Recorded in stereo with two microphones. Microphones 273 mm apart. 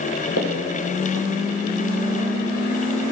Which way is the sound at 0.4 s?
65° left (ahead or behind).